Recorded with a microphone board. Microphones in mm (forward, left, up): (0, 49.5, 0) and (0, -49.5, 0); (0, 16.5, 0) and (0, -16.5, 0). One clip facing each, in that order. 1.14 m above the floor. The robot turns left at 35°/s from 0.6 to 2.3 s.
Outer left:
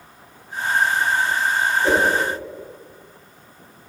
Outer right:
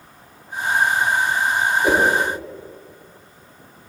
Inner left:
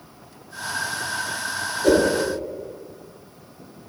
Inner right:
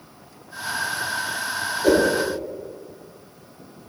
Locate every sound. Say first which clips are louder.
1.8 s a whoosh: outer right 1 dB, even; 15° right (ahead or behind), 0.8 m; by 2.1 s 10° right (ahead or behind), 0.8 m